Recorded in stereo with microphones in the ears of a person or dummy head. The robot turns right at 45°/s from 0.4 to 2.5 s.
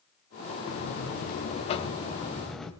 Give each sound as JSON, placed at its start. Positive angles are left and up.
{"t": 0.7, "sound": "a buzzer", "azimuth_deg": 95, "distance_m": 2.0}